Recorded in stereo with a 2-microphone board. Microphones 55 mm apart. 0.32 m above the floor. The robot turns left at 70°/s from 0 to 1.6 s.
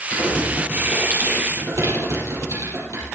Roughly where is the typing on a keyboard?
Left.